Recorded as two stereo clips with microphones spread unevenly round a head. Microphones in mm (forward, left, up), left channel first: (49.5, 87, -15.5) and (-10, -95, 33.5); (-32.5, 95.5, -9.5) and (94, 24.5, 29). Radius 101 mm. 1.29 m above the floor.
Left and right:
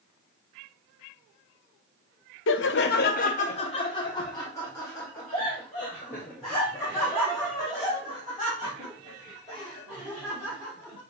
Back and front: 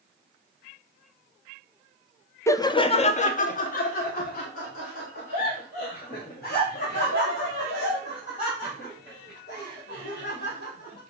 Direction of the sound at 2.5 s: 85° left.